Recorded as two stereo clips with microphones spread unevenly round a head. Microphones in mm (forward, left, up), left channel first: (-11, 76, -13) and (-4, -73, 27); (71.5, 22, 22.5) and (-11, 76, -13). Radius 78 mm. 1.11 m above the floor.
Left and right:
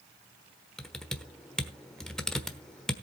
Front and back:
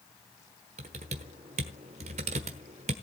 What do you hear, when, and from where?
0.8 s typing on a keyboard: 170° right, 1.1 m